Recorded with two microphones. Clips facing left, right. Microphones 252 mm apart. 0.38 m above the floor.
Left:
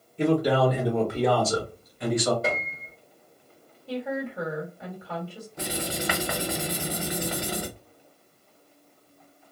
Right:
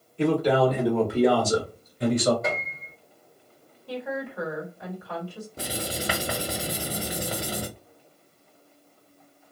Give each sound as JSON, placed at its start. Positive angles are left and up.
{"t": 0.2, "sound": "a man speaking", "side_deg": 20, "distance_m": 1.0}
{"t": 2.4, "sound": "a piano", "side_deg": 35, "distance_m": 0.8}
{"t": 3.9, "sound": "a woman speaking", "side_deg": 25, "distance_m": 1.8}
{"t": 5.6, "sound": "writing", "side_deg": -35, "distance_m": 0.8}